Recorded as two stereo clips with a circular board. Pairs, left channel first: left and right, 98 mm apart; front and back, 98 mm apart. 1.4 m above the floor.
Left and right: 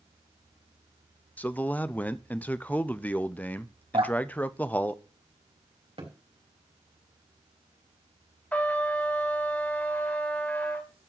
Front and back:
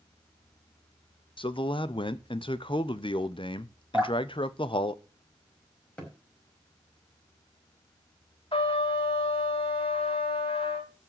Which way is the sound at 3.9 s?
100° right.